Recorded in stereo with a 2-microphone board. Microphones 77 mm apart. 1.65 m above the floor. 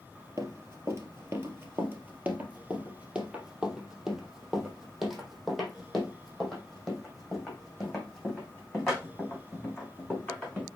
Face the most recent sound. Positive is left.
turn(degrees=10)  # may be behind; listen again after turning